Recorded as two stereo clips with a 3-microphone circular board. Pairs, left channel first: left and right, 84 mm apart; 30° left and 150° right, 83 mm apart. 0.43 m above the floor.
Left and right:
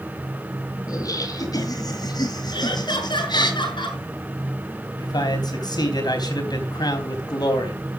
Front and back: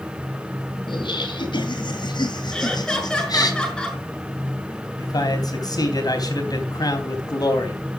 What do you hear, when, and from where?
0.9 s laughter: 45° left, 4 m; by 3.5 s 65° left, 3 m
2.5 s laughter: 110° left, 6 m
5.0 s a man speaking: 65° left, 3.5 m